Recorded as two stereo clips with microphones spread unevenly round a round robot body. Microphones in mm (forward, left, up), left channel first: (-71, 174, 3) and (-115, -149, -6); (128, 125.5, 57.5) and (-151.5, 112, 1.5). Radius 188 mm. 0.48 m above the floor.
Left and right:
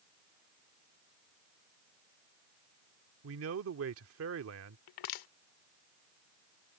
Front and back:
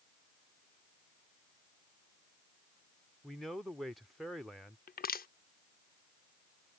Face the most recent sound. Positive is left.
turn(degrees=70)